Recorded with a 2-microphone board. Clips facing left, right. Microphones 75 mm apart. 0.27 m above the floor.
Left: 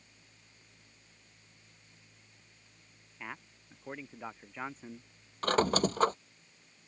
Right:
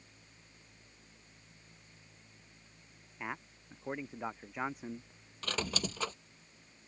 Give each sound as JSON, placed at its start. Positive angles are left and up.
{"t": 3.2, "sound": "a man speaking", "side_deg": -15}
{"t": 5.4, "sound": "a squeak", "side_deg": 45}